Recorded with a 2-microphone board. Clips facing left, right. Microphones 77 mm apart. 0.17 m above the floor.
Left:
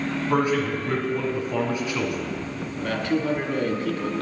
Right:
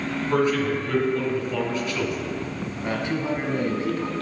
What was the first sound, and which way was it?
A man speaking, 15° left (ahead or behind).